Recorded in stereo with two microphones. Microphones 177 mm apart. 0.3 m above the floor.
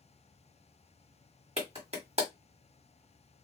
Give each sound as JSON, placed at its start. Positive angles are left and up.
{"t": 1.6, "sound": "a clap", "side_deg": -35, "distance_m": 1.3}